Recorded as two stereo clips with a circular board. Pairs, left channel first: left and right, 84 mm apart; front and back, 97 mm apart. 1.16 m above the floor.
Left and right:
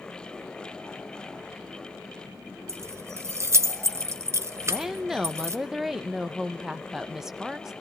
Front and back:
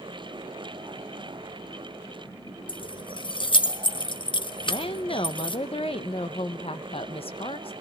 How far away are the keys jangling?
About 0.9 m.